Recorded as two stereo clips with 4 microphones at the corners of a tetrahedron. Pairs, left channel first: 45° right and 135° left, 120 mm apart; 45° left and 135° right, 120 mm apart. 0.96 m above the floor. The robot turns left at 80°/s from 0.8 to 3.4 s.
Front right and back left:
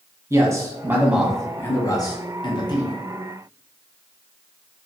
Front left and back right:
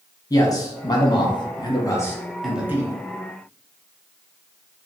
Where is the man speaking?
85° left, 0.7 m; by 2.9 s 85° right, 0.7 m.